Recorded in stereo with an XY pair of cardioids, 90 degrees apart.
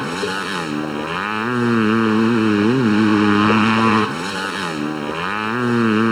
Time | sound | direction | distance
0.0 | a motorcycle | straight ahead | ?